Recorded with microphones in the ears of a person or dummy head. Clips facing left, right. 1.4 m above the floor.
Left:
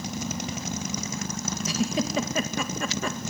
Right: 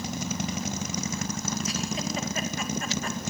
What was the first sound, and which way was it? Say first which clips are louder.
A giggle: left 5 dB; 65° left (ahead or behind).